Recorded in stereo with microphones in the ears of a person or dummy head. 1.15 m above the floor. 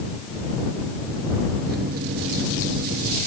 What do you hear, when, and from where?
1.7 s a microwave: 60° right (ahead or behind)